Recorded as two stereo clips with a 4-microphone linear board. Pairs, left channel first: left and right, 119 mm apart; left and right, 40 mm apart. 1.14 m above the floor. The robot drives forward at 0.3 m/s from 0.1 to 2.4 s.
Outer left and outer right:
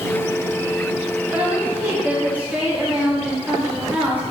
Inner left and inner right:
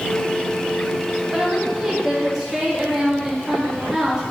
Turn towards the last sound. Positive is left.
turn(degrees=-15)  # may be behind; listen again after turning